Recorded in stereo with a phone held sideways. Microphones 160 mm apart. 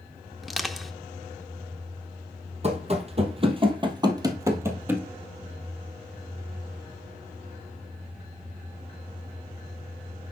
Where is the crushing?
Centre (ahead or behind), 0.7 m.